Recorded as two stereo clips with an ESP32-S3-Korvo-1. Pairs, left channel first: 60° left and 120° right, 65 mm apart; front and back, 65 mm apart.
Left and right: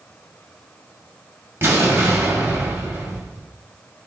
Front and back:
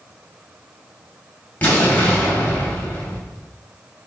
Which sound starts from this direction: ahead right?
An explosion, at 1.6 s.